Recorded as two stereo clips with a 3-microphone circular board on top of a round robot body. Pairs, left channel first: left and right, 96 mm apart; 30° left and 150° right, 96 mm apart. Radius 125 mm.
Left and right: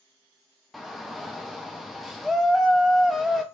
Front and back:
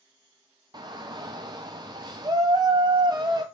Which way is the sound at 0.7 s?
Straight behind.